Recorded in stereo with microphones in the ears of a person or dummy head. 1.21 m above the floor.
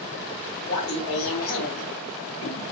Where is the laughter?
75° left (ahead or behind), 1.2 m; by 2.6 s 25° left (ahead or behind), 0.6 m.